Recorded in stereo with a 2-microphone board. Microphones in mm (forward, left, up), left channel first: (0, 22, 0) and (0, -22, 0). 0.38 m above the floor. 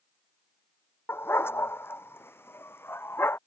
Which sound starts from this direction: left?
A dog barking, at 1.1 s.